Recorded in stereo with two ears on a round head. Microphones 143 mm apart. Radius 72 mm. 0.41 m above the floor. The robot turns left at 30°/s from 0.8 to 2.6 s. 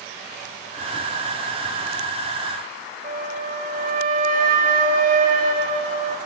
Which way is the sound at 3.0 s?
50° right (ahead or behind).